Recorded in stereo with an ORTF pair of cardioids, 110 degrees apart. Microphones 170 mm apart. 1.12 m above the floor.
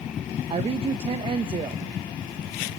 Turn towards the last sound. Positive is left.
turn(degrees=-35)